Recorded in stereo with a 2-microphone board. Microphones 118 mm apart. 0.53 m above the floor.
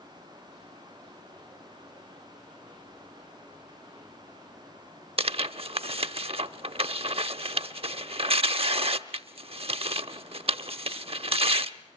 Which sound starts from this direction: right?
Tearing paper, at 5.2 s.